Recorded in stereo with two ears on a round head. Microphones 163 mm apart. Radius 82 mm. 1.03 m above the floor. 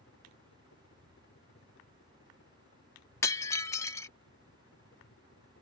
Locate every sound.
0.0 s a helicopter: 70° left (ahead or behind)
3.2 s breaking glass: 15° left (ahead or behind)